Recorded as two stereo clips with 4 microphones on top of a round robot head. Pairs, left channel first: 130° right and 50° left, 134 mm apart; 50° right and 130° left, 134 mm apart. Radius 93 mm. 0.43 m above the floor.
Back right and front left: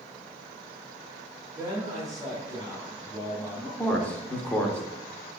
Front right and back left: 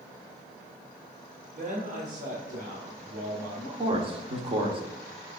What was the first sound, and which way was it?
A man speaking, 130° left.